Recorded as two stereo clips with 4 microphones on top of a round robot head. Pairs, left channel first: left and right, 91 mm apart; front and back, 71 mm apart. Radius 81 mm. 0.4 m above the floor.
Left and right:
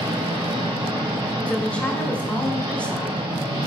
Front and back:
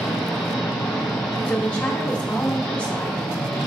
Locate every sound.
0.0 s an engine running: 70° right, 1.4 m
1.5 s a woman speaking: 35° left, 0.8 m